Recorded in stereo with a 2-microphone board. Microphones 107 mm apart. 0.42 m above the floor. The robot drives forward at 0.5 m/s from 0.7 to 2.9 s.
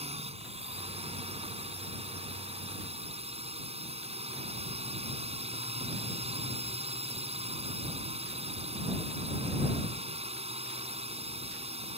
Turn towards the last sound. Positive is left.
turn(degrees=-70)  # may be behind; listen again after turning